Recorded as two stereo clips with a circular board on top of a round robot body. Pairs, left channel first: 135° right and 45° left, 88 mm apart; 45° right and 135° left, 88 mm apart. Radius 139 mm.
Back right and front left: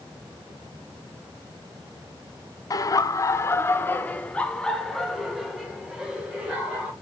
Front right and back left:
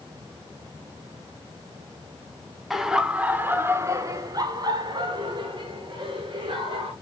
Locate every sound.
2.7 s laughter: 140° right, 1.2 m; by 6.9 s 120° left, 2.5 m